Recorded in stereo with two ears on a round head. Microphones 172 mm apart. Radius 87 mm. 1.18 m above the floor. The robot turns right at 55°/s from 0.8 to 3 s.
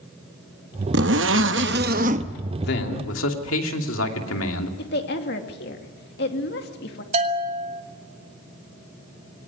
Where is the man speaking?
50° left (ahead or behind), 2.5 m; by 4.7 s 70° left (ahead or behind), 2.5 m.